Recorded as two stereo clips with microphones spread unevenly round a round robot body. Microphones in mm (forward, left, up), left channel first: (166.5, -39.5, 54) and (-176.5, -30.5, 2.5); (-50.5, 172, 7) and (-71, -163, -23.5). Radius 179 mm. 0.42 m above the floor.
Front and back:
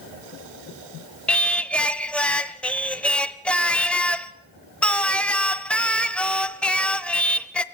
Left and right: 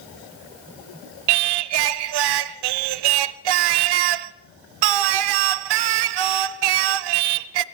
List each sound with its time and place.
1.3 s singing: 90° right, 0.6 m